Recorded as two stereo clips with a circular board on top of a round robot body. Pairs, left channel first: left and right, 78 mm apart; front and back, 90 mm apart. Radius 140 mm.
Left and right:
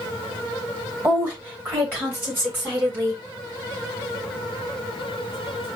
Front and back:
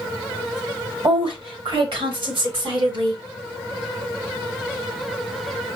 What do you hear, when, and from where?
1.0 s a woman speaking: 155° right, 2.5 m; by 3.2 s 150° right, 4 m